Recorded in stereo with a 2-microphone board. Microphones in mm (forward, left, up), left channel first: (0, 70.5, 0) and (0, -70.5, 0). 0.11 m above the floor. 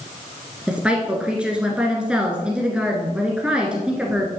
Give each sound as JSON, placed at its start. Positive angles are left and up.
{"t": 0.7, "sound": "a woman speaking", "side_deg": -5, "distance_m": 1.5}